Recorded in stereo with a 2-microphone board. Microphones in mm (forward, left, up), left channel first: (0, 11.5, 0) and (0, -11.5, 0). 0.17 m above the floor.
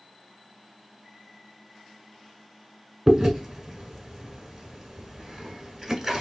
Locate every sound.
3.1 s chewing: 15° right (ahead or behind), 1.1 m